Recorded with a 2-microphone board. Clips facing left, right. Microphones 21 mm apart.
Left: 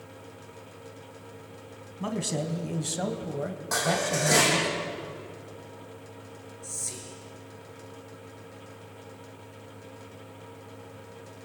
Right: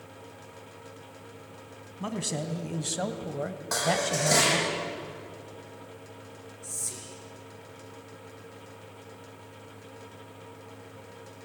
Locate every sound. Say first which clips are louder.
2.0 s a man speaking: left 2 dB; centre (ahead or behind), 2 m; by 4.7 s 25° right (ahead or behind), 1.1 m
3.7 s dishes clattering: even; 10° right (ahead or behind), 8.5 m
6.6 s whispering: left 1 dB; 10° right (ahead or behind), 3.5 m